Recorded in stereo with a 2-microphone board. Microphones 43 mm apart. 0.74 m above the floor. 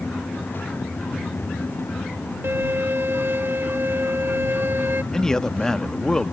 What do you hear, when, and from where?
2.4 s a violin: 60° right (ahead or behind)
5.1 s a man speaking: 15° left (ahead or behind)